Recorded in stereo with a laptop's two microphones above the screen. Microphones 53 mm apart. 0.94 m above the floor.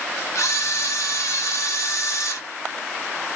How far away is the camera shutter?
About 0.8 m.